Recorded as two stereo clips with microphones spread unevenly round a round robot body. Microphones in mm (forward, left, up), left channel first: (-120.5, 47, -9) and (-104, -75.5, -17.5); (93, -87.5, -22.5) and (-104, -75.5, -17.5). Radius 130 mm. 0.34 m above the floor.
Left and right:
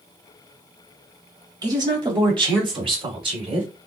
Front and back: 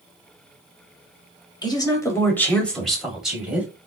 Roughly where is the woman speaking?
Ahead right.